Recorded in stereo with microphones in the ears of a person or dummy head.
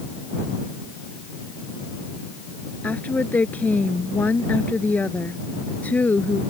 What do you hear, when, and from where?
2.8 s a woman speaking: 5° left (ahead or behind)